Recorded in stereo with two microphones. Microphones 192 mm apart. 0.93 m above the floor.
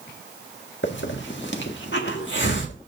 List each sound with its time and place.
0.8 s a hiss: 75° left (ahead or behind), 1.5 m